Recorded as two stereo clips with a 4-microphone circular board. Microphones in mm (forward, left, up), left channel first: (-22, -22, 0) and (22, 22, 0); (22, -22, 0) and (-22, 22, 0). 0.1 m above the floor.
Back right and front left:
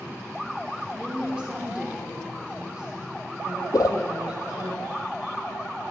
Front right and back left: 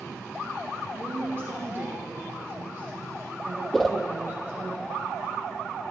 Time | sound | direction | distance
0.9 | a woman speaking | 110° left | 1.9 m
3.7 | a whoosh | 130° right | 0.6 m